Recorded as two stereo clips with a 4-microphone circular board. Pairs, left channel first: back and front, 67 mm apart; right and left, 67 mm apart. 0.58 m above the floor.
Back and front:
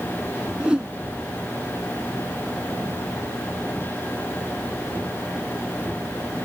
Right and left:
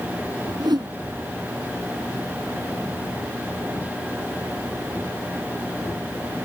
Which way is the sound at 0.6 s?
80° left.